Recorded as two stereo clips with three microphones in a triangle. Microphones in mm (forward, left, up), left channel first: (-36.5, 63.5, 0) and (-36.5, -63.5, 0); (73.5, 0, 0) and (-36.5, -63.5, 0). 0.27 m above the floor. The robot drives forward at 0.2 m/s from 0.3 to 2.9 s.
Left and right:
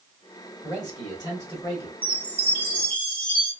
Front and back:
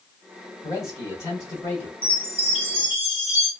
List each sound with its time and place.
0.6 s a man speaking: 60° left, 1.7 m; by 1.9 s 80° left, 1.7 m
2.0 s a chime: 165° left, 1.3 m; by 3.5 s 170° left, 1.5 m